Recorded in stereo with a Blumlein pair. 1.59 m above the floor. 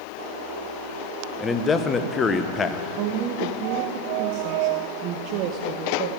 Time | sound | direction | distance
1.4 | a man speaking | 20° left | 0.8 m
3.0 | a woman speaking | 40° right | 0.7 m